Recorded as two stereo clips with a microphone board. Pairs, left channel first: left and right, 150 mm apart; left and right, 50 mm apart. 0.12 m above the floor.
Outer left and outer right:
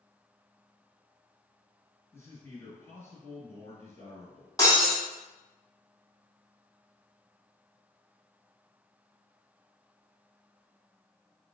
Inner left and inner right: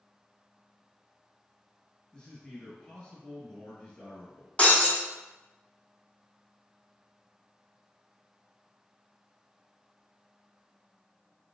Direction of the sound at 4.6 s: 25° left (ahead or behind).